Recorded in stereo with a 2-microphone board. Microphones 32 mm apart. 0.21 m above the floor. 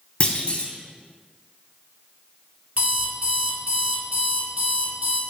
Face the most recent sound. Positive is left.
turn(degrees=-50)  # may be behind; listen again after turning